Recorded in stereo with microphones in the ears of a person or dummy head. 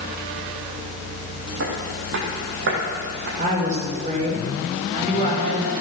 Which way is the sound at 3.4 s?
45° right (ahead or behind).